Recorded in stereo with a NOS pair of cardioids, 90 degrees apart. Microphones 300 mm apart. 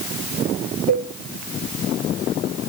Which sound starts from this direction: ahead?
A cowbell, at 0.9 s.